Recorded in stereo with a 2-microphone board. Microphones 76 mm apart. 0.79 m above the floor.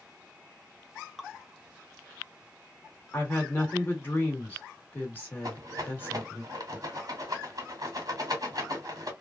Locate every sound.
1.2 s dripping: centre (ahead or behind), 0.6 m
3.1 s a woman speaking: 25° left (ahead or behind), 1.8 m
5.4 s a rattle: 50° right (ahead or behind), 1.9 m